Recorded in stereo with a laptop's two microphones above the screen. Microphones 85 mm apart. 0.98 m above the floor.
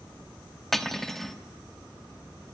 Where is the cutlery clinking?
Centre (ahead or behind), 0.8 m.